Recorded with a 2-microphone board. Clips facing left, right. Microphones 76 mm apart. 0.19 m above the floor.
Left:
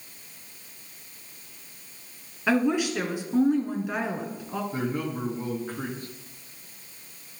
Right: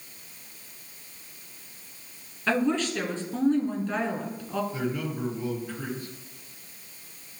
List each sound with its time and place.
2.5 s a woman speaking: 10° left (ahead or behind), 1.8 m
4.7 s a man speaking: 50° left (ahead or behind), 2.5 m